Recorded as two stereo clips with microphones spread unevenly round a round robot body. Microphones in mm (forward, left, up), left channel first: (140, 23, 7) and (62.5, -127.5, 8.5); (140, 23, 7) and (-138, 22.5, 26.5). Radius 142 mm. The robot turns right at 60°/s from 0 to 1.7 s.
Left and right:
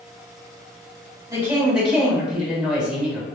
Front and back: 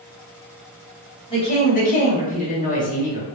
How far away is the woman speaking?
About 1.7 m.